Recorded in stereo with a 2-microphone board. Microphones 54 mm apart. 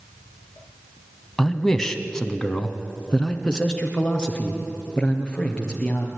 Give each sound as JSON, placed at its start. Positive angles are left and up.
{"t": 1.4, "sound": "a man speaking", "side_deg": 5, "distance_m": 1.1}